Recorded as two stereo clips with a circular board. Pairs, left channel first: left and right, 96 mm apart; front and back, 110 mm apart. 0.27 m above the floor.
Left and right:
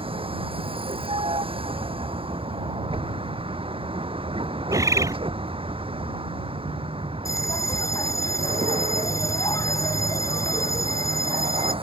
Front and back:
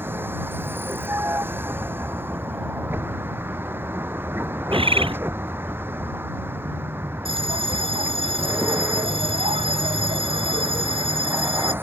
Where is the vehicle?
110° right.